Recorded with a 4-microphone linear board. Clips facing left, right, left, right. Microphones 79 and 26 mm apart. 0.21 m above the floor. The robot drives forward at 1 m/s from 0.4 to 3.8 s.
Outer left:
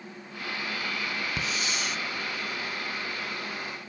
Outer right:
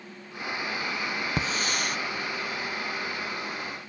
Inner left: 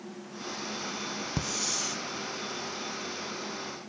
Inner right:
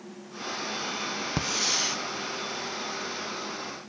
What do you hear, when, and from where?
1.4 s a hiss: 35° right (ahead or behind), 0.7 m; by 2.0 s 50° right (ahead or behind), 0.5 m